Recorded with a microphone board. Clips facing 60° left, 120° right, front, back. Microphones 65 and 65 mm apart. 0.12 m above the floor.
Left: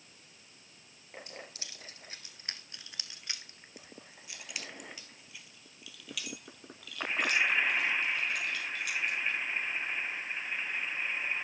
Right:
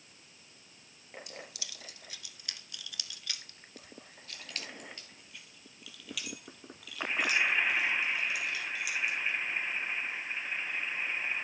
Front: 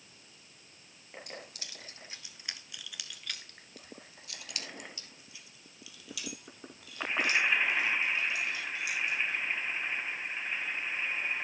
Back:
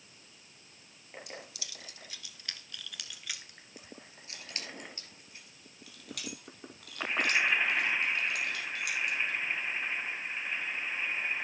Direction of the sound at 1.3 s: 15° left.